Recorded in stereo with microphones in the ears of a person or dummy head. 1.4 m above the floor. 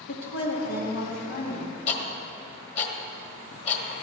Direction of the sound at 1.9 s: 45° left (ahead or behind).